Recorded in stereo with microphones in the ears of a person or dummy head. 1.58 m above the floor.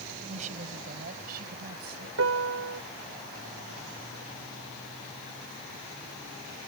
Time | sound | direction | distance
0.3 | a woman speaking | 40° right (ahead or behind) | ?
2.2 | a piano | 80° right | ?